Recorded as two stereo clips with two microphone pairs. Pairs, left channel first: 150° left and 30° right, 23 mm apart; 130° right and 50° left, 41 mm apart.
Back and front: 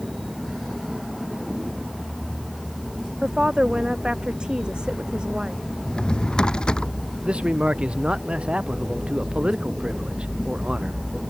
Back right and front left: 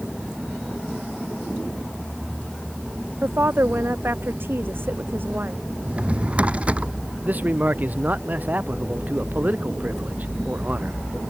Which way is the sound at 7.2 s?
Straight ahead.